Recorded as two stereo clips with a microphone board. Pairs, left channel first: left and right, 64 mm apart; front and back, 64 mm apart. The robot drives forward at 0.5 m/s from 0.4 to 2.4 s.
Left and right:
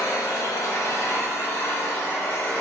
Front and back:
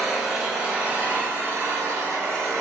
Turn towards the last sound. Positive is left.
turn(degrees=145)